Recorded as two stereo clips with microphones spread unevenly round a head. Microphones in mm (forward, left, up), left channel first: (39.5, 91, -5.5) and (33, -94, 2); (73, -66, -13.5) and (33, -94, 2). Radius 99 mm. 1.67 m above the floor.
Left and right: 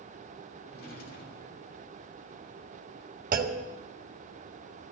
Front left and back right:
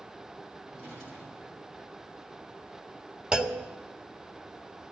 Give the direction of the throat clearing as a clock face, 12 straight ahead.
I don't hear throat clearing.